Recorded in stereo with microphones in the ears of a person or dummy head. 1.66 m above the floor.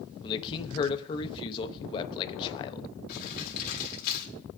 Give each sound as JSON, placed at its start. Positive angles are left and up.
{"t": 0.2, "sound": "a man speaking", "side_deg": 25, "distance_m": 1.1}
{"t": 3.1, "sound": "crumpling", "side_deg": 55, "distance_m": 3.5}